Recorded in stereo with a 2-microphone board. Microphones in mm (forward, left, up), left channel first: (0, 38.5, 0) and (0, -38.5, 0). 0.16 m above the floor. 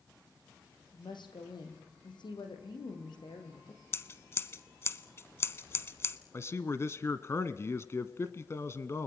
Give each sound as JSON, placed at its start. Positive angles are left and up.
{"t": 0.9, "sound": "a woman speaking", "side_deg": 75, "distance_m": 6.0}
{"t": 3.9, "sound": "scissors", "side_deg": 35, "distance_m": 1.0}
{"t": 6.3, "sound": "a man speaking", "side_deg": 35, "distance_m": 1.3}